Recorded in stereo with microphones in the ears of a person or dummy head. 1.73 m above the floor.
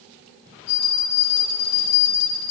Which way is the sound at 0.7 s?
50° left (ahead or behind).